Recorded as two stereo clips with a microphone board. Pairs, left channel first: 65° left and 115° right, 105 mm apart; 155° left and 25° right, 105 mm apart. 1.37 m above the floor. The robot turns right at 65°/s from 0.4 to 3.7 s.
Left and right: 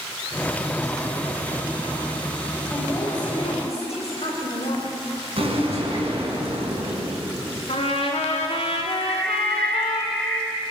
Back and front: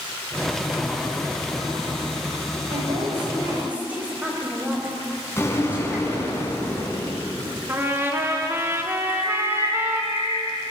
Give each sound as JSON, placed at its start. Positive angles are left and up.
{"t": 2.7, "sound": "a woman speaking", "azimuth_deg": -15, "distance_m": 5.5}
{"t": 5.4, "sound": "an explosion", "azimuth_deg": -140, "distance_m": 4.5}
{"t": 7.7, "sound": "a trumpet", "azimuth_deg": 45, "distance_m": 2.5}
{"t": 9.0, "sound": "a bird", "azimuth_deg": 150, "distance_m": 2.5}